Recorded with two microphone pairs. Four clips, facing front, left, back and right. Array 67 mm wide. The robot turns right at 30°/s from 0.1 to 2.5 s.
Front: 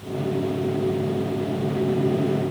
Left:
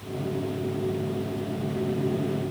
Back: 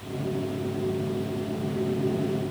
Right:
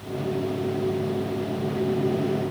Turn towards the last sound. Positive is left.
No sound to turn to.